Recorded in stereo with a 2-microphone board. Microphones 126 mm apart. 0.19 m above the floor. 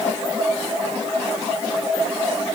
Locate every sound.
Only background noise.